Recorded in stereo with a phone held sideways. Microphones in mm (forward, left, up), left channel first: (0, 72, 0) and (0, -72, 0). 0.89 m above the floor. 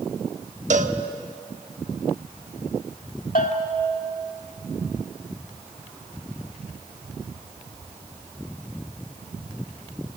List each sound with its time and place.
0.7 s a cowbell: 60° right (ahead or behind), 1.2 m
3.4 s a bell: 75° left (ahead or behind), 2.5 m